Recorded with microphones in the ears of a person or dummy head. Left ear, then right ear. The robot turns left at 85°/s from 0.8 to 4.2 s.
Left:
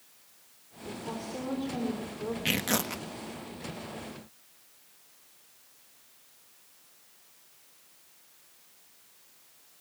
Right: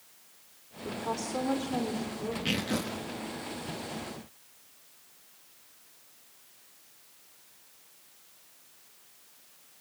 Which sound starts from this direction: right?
A woman speaking, at 0.8 s.